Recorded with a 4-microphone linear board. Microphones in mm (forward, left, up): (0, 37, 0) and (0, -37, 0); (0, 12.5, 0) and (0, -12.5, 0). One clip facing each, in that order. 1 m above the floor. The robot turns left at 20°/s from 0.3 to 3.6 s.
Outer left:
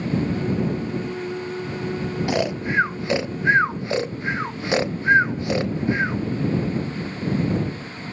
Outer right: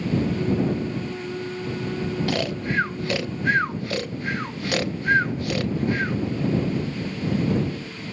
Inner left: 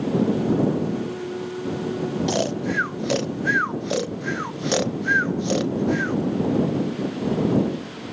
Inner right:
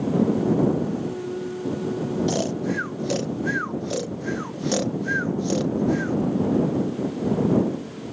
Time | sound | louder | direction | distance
2.3 | snoring | outer left 3 dB, inner left 1 dB | 20° left (ahead or behind) | ?